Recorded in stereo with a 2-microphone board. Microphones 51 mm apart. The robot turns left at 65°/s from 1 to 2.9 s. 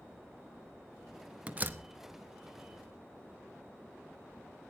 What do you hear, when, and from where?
1.5 s a door slam: 20° right (ahead or behind), 0.9 m; by 1.8 s 40° right (ahead or behind), 0.9 m